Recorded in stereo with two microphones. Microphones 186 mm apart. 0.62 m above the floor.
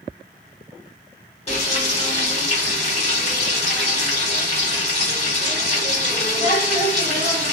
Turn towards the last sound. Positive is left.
turn(degrees=35)  # may be behind; listen again after turning